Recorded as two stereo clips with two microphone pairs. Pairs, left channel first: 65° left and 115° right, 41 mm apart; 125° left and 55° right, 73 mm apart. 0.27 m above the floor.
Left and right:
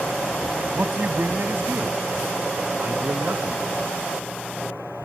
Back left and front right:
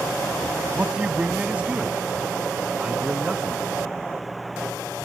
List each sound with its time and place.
0.8 s a man speaking: 125° right; by 3.6 s 130° right